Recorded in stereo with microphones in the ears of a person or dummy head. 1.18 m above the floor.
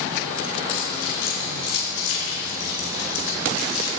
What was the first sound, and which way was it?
Keys jangling, 80° left.